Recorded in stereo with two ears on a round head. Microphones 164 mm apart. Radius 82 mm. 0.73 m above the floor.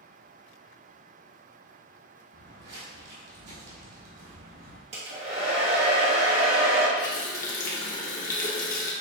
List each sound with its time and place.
2.3 s footsteps: 55° right (ahead or behind), 1.9 m; by 4.8 s 70° right (ahead or behind), 2 m
4.9 s a hair dryer: 35° right (ahead or behind), 1.3 m
7.0 s a running tap: 45° left (ahead or behind), 0.9 m